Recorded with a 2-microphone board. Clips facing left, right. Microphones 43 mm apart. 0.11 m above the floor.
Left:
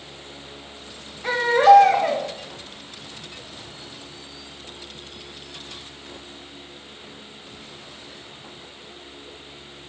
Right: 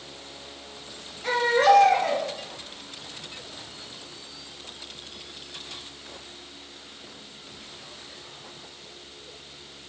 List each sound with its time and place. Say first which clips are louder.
1.2 s a baby crying: left 5 dB; 20° left (ahead or behind), 2.5 m